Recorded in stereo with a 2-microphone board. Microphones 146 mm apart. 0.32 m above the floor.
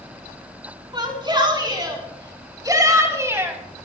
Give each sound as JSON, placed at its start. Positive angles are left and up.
{"t": 0.9, "sound": "a shout", "side_deg": -35, "distance_m": 4.0}